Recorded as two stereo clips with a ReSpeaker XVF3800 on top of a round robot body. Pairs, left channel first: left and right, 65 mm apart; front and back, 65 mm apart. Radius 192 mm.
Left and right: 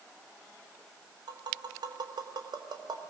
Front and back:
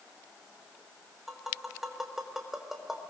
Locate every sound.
1.3 s tapping: 95° right, 4 m